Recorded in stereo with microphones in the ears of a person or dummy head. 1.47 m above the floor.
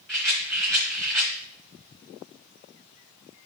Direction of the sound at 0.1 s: Centre (ahead or behind).